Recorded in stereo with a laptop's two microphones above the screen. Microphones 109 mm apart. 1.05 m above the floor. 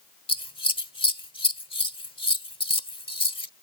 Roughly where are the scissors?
Left.